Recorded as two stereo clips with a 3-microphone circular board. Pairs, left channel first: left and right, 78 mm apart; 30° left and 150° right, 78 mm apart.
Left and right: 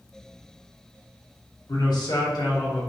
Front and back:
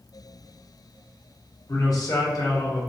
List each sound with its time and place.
1.7 s a man speaking: 70° left, 1.1 m